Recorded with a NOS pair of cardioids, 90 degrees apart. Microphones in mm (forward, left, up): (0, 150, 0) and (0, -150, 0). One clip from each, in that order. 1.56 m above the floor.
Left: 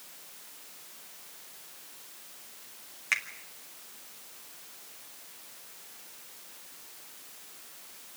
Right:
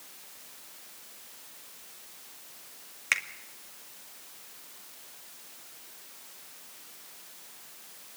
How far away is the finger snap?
About 2 m.